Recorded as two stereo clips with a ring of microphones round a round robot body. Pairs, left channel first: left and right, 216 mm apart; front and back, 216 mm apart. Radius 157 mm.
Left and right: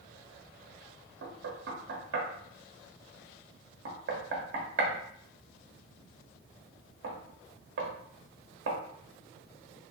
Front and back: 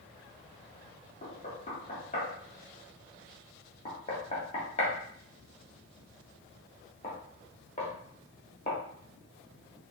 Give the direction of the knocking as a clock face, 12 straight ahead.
2 o'clock.